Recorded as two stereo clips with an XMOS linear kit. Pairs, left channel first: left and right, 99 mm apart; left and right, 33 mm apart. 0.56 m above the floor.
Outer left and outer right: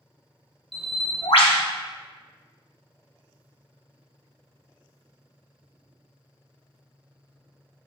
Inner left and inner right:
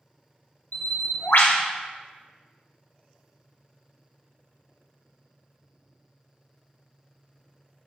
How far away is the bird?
About 0.6 m.